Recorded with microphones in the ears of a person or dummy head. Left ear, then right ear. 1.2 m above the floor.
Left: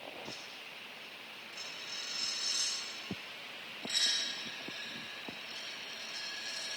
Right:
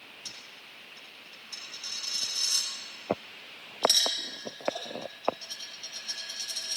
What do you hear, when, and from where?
0.2 s a dropped coin: 65° right (ahead or behind), 3 m